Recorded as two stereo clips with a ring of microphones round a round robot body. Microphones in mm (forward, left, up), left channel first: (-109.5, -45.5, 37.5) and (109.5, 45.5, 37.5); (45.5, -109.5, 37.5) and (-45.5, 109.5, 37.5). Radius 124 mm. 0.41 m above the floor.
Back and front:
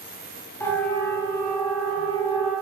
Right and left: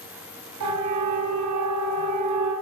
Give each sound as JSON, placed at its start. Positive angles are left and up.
{"t": 0.6, "sound": "a siren", "azimuth_deg": 125, "distance_m": 9.0}